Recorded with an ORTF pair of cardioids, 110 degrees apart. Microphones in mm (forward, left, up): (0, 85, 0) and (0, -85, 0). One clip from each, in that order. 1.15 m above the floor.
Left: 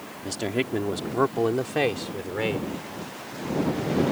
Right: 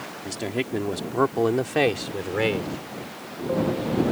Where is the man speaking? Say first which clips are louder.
Left 1 dB; 15° left; by 2.8 s 30° right.